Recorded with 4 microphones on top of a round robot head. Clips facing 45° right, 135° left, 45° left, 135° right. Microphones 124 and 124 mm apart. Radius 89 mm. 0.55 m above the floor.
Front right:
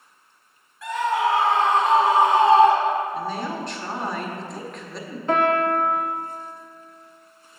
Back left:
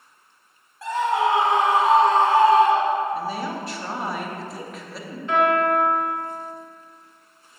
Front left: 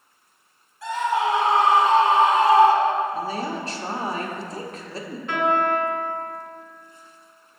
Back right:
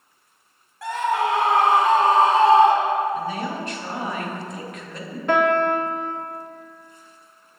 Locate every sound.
0.8 s a scream: 165° right, 1.6 m; by 3.0 s 60° right, 1.1 m
3.1 s a woman speaking: 55° left, 1.0 m
5.3 s a piano: 100° right, 0.5 m